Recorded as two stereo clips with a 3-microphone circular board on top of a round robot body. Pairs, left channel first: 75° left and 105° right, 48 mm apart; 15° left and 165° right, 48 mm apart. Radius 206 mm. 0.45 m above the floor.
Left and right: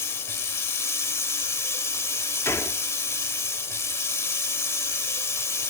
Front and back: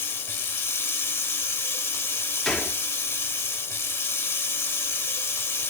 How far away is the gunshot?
About 1.3 m.